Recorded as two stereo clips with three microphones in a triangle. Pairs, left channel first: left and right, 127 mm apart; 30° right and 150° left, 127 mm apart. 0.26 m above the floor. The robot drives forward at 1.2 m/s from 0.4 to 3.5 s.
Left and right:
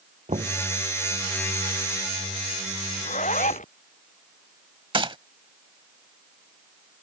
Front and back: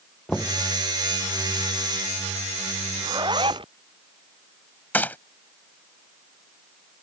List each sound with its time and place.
0.3 s knocking: 120° right
3.0 s a zipper: 95° left; by 3.7 s 105° left
4.9 s a gunshot: 100° right